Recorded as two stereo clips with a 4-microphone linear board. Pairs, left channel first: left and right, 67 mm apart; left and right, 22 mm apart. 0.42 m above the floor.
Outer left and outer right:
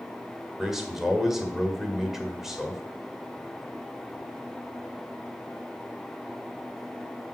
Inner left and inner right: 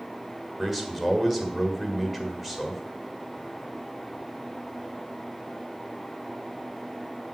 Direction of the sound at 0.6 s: 5° right (ahead or behind).